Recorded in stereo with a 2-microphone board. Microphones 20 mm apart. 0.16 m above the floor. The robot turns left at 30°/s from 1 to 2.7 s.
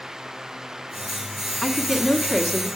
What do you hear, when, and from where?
1.6 s a woman speaking: 20° left (ahead or behind), 1.1 m; by 2.7 s 25° left (ahead or behind), 1.1 m